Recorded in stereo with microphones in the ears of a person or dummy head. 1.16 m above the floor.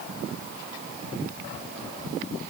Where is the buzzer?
No buzzer in this recording.